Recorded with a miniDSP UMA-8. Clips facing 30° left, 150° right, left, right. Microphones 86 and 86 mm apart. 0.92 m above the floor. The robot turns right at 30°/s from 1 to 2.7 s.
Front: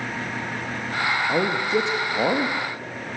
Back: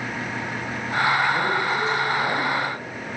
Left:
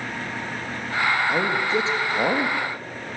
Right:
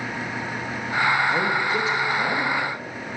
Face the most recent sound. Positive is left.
turn(degrees=55)